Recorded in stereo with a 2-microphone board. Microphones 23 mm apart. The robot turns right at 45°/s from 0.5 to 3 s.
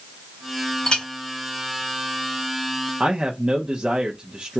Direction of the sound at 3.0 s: 35° right (ahead or behind).